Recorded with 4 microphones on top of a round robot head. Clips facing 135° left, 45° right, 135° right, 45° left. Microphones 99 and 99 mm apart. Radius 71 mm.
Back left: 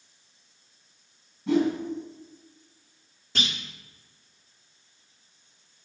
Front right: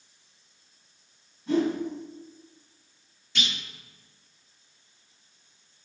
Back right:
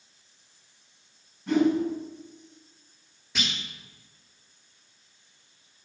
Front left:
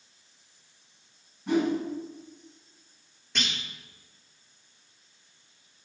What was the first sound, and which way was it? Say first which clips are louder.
A whoosh: back left 2 dB, back right 3 dB; 130° left.